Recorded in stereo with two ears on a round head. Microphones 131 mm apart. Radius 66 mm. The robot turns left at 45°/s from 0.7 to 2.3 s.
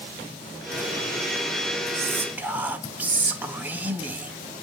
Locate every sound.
1.9 s whispering: 20° right (ahead or behind), 0.9 m; by 4.3 s 10° right (ahead or behind), 0.9 m